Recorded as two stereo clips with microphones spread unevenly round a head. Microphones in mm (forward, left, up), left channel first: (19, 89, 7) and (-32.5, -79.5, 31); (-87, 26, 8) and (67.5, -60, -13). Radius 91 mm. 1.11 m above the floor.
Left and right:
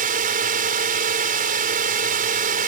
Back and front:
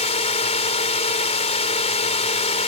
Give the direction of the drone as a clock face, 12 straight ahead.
5 o'clock.